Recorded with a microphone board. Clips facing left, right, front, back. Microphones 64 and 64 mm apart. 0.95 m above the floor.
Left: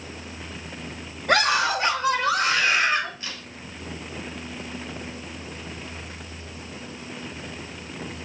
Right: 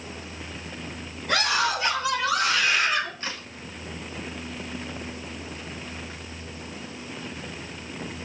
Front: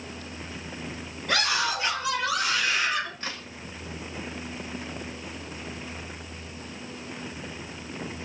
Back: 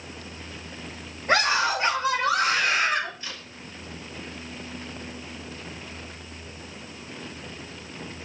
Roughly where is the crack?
Ahead right.